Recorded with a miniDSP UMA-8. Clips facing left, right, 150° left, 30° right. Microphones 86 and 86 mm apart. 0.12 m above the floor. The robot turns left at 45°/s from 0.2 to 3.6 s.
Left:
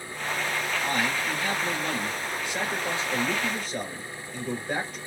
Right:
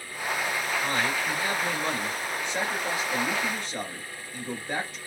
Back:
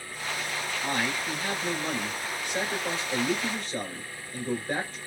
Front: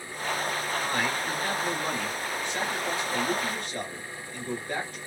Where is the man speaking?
65° right, 1.8 m; by 5.0 s 170° left, 1.8 m.